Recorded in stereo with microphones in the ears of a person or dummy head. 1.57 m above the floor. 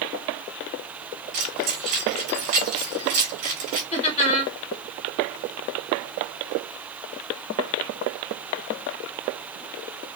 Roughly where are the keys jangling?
Right.